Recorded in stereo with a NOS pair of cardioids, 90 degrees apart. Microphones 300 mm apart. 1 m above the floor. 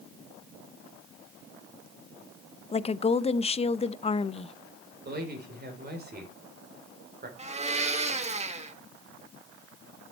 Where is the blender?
25° right, 1.5 m.